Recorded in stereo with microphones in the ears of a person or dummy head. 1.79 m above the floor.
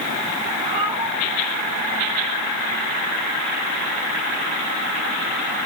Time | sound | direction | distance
0.6 | a cat meowing | 30° right (ahead or behind) | 4.5 m